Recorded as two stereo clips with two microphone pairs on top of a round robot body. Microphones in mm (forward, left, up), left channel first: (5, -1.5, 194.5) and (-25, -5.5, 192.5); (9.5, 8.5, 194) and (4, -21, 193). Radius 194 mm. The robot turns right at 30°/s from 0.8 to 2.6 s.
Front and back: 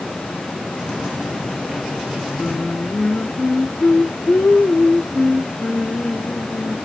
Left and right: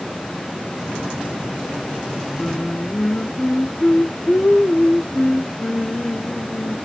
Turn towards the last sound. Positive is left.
turn(degrees=35)